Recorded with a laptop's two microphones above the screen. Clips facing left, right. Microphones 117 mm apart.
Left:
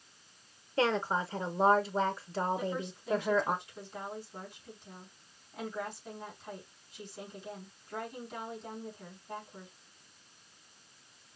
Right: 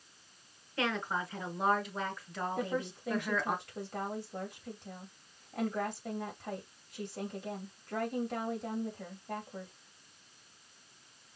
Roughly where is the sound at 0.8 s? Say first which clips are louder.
Left 5 dB; left.